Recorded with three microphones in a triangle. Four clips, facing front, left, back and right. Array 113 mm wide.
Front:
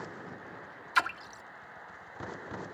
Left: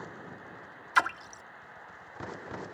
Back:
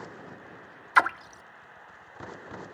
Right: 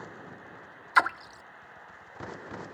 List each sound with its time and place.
0.9 s a splash: 155° right